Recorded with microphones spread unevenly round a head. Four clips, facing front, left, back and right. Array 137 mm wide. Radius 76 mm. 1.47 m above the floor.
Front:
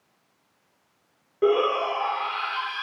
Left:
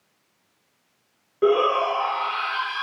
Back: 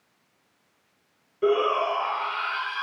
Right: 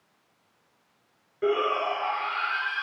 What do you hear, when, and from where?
1.4 s a shout: 45° left, 4 m